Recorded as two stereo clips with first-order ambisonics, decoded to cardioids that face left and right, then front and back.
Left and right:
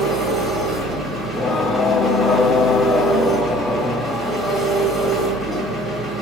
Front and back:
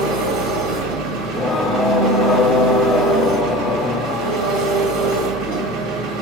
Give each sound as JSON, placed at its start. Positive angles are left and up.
{"t": 0.0, "sound": "an engine running", "azimuth_deg": -165, "distance_m": 2.0}
{"t": 1.2, "sound": "singing", "azimuth_deg": 35, "distance_m": 0.9}